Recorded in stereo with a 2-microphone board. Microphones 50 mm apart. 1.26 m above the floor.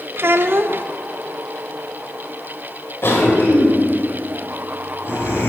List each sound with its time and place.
0.2 s a child speaking: 45° right (ahead or behind), 0.5 m
3.0 s a cough: 50° left (ahead or behind), 4.5 m